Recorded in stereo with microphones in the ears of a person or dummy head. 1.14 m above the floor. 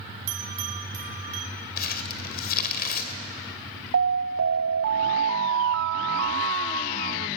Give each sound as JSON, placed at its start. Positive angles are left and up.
{"t": 0.3, "sound": "a bell", "side_deg": -35, "distance_m": 1.5}
{"t": 1.8, "sound": "crumpling", "side_deg": 55, "distance_m": 2.5}
{"t": 3.9, "sound": "an alarm", "side_deg": -60, "distance_m": 0.8}